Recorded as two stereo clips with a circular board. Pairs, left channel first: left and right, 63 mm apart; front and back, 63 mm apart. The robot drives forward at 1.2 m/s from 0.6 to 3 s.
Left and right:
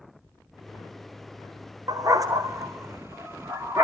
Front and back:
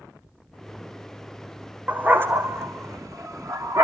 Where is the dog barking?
110° right, 1.8 m; by 3.9 s 140° right, 2.5 m.